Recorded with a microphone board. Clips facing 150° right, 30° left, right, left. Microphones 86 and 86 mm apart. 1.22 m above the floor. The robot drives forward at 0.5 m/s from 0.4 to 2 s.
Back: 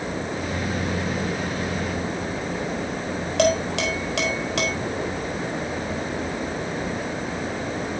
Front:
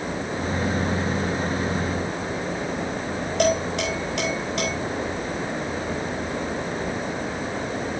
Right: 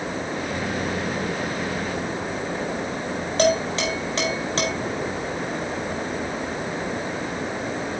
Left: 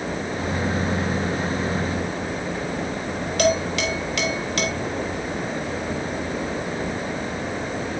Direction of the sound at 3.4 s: 150° right.